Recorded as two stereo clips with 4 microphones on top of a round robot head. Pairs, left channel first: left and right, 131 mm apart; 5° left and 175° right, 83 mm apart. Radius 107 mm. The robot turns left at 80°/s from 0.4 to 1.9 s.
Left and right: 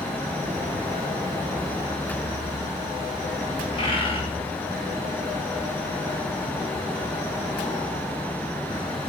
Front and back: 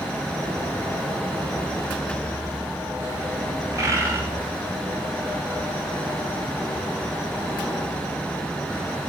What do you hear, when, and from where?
3.7 s a bird: 130° left, 1.5 m